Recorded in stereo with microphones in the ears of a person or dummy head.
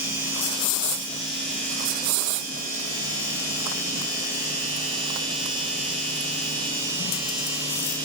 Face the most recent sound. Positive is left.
No sound to turn to.